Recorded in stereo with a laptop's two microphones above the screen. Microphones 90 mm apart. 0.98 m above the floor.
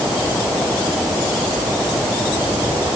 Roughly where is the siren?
No siren in this recording.